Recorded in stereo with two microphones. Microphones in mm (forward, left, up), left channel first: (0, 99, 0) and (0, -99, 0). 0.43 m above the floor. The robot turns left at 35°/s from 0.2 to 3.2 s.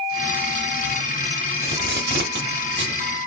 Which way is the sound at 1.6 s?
50° right (ahead or behind).